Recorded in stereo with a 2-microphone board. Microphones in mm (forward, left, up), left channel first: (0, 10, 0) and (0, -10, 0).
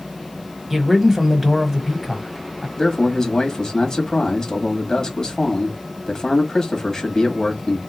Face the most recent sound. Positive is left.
turn(degrees=35)  # may be behind; listen again after turning